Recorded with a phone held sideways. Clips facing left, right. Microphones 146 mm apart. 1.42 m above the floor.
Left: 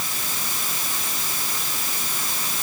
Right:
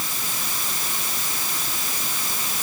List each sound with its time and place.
Only background noise.